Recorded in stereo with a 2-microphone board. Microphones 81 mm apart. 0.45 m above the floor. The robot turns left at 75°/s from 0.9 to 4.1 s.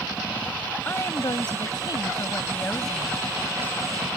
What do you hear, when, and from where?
0.8 s a woman speaking: 150° left; by 3.2 s 20° right